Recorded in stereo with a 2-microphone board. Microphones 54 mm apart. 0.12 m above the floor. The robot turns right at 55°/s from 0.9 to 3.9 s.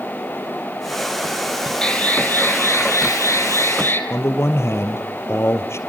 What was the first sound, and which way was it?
An alarm, 20° left.